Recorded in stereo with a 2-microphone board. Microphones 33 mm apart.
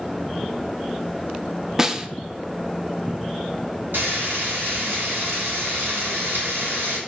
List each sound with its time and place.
1.8 s a snare drum: 15° right (ahead or behind), 0.7 m
3.9 s frying: 70° right (ahead or behind), 4 m